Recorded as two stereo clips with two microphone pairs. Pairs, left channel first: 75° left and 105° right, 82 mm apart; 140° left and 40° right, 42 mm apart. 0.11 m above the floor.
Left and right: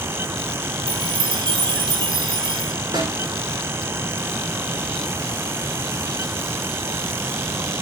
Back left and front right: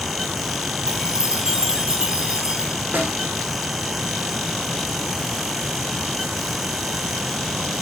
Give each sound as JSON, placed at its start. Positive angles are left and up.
{"t": 0.9, "sound": "a chime", "azimuth_deg": -110, "distance_m": 2.0}
{"t": 2.9, "sound": "a snare drum", "azimuth_deg": -80, "distance_m": 7.0}